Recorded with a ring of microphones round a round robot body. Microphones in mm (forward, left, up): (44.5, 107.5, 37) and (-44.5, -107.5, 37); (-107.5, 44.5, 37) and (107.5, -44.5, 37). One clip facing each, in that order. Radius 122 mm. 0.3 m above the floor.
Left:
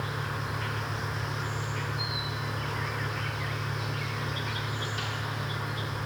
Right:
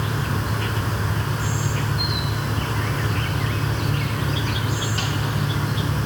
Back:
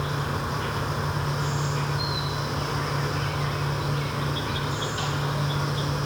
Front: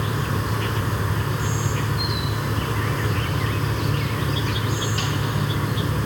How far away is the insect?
About 1.0 m.